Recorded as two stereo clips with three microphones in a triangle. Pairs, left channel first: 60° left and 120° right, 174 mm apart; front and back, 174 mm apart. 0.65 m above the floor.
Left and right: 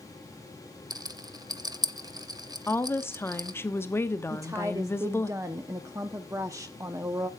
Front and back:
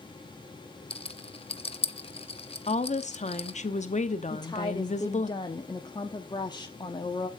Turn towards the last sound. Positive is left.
turn(degrees=-55)